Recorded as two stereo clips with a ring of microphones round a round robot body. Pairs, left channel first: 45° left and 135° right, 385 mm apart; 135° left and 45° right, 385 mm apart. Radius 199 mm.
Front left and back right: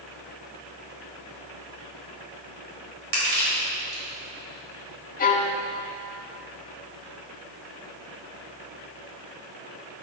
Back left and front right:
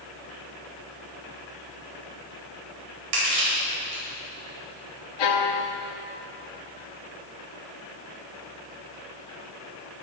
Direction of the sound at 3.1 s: 80° right.